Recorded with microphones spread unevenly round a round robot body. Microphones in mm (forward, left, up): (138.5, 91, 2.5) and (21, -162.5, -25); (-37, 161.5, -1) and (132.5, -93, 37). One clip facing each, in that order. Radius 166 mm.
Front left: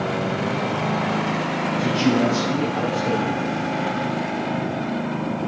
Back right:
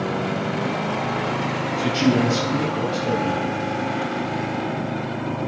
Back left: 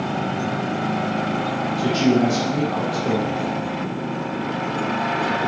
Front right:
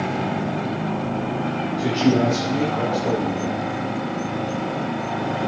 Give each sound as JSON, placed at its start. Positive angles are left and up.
{"t": 1.8, "sound": "a man speaking", "azimuth_deg": -170, "distance_m": 4.0}